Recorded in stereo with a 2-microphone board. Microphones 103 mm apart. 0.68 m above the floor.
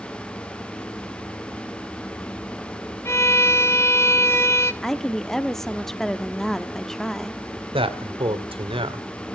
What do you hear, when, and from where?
3.0 s a violin: 25° left (ahead or behind), 1.0 m
4.8 s a woman speaking: 5° left (ahead or behind), 1.0 m
7.7 s a man speaking: 60° right (ahead or behind), 1.9 m